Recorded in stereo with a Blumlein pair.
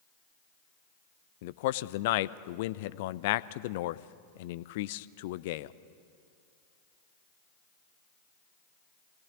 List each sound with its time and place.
1.4 s a man speaking: 50° left, 0.6 m